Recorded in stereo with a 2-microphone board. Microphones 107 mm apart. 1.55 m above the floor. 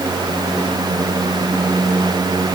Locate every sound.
Only background noise.